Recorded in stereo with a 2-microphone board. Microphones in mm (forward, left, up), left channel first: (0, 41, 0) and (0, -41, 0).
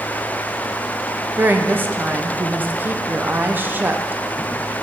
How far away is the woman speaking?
About 0.6 m.